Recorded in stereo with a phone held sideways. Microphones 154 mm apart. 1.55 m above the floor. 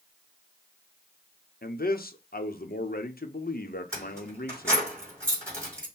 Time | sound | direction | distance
1.6 | a man speaking | 75° left (ahead or behind) | 0.8 m
3.9 | keys jangling | 15° right (ahead or behind) | 3 m